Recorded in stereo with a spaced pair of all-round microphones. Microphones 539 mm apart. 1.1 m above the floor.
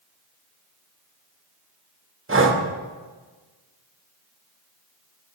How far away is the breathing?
About 0.8 m.